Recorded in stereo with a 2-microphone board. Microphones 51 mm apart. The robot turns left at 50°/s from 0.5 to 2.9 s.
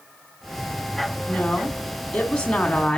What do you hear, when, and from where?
1.3 s a woman speaking: 15° left (ahead or behind), 1.2 m